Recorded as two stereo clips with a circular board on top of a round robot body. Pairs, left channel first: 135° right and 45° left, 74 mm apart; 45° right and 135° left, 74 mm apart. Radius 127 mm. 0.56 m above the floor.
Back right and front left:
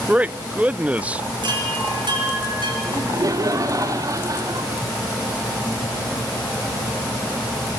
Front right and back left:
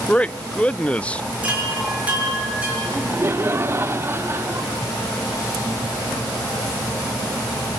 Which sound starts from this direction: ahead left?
A chime, at 1.4 s.